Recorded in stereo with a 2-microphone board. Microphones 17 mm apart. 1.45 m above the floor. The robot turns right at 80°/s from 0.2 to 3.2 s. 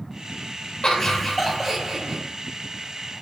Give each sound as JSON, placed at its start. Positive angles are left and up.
{"t": 0.8, "sound": "laughter", "azimuth_deg": 130, "distance_m": 0.7}